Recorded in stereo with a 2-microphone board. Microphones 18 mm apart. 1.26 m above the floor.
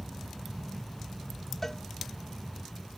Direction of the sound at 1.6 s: 25° left (ahead or behind).